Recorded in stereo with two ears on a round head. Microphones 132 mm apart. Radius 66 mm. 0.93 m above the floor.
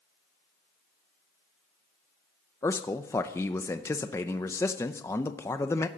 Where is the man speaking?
20° left (ahead or behind), 0.6 m.